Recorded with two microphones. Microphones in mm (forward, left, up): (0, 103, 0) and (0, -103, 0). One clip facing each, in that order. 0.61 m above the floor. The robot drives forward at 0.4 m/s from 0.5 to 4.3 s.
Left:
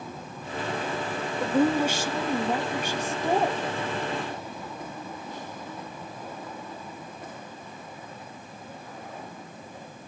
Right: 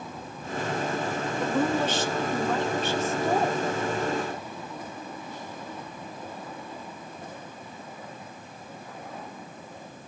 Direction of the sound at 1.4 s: 10° left (ahead or behind).